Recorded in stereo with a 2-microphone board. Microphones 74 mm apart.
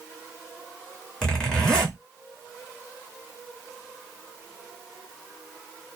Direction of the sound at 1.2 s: 10° left (ahead or behind).